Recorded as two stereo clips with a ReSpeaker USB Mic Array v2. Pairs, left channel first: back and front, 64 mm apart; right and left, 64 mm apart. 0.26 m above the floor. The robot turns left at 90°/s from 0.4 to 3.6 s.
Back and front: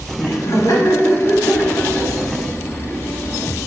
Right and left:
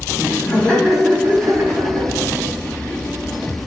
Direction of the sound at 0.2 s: 135° right.